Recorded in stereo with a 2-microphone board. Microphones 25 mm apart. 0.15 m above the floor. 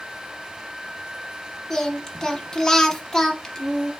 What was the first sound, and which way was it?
Singing, 20° left (ahead or behind).